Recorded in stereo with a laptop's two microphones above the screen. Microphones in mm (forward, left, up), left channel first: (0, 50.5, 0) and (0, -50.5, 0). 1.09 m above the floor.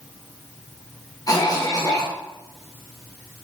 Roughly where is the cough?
Left.